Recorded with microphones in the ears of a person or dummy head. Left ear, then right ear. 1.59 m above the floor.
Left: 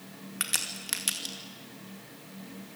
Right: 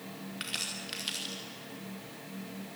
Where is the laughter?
I don't hear laughter.